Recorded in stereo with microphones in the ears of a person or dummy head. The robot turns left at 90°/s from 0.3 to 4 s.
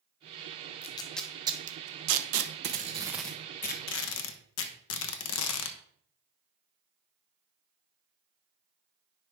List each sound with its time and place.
0.8 s tape being pulled: 40° left (ahead or behind), 0.9 m; by 5.8 s 70° left (ahead or behind), 0.9 m